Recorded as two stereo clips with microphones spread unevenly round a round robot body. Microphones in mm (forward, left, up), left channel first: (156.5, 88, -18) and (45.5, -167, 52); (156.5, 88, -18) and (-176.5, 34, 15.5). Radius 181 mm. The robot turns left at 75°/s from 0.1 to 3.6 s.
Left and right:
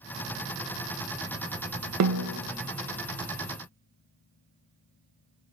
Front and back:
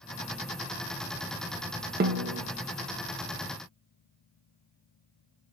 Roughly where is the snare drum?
Right.